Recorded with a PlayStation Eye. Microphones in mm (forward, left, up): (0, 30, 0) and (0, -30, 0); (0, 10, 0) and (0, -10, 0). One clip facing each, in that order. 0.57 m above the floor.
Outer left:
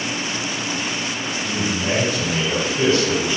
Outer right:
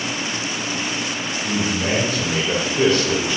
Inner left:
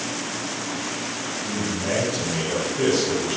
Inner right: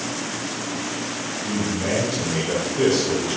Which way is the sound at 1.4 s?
65° right (ahead or behind).